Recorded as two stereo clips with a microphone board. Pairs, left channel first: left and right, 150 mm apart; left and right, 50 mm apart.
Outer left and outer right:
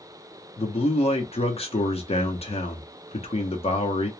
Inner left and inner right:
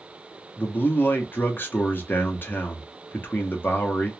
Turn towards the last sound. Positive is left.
turn(degrees=45)  # may be behind; listen again after turning